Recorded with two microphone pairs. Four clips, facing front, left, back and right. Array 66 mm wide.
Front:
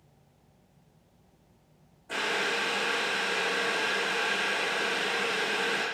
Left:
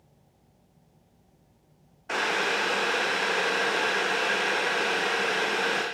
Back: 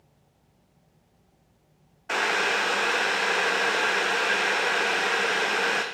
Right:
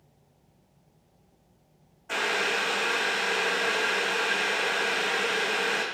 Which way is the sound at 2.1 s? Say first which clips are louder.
Left 1 dB, back 5 dB; 165° left.